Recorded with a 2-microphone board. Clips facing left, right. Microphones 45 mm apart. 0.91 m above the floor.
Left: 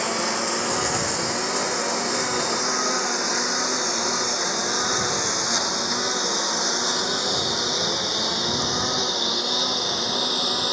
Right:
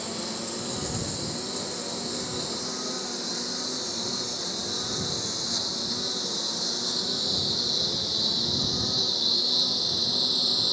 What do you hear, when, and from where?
0.0 s a lawn mower: 65° left (ahead or behind); by 10.7 s 55° left (ahead or behind)